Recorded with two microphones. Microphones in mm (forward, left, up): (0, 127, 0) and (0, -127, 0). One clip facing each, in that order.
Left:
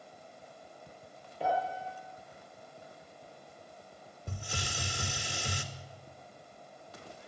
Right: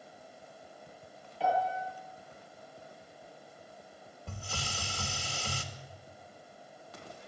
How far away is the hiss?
About 2.0 m.